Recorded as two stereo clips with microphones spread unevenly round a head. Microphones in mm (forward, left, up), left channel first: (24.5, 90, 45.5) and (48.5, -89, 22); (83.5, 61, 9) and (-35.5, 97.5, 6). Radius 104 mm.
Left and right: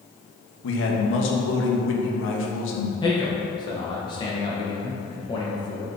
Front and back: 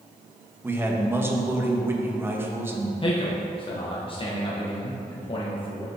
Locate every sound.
0.6 s a man speaking: 90° left, 1.2 m
3.0 s a man speaking: 30° left, 1.3 m